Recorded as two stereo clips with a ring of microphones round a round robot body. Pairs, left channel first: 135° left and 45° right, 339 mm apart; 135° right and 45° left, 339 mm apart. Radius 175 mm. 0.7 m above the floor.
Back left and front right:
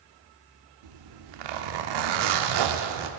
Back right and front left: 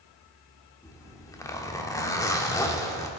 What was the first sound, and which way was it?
A zipper, 55° right.